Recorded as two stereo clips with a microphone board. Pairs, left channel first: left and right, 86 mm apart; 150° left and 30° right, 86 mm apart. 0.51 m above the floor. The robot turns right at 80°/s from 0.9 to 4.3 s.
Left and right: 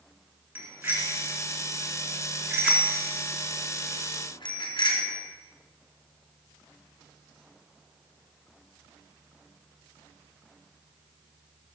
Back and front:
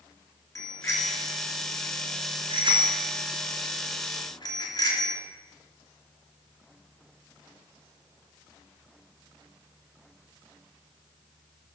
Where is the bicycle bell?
160° right, 3.5 m; by 5.2 s 110° left, 3.5 m.